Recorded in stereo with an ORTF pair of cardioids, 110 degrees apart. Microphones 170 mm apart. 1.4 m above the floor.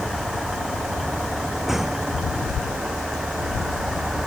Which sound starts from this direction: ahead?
A vehicle, at 0.0 s.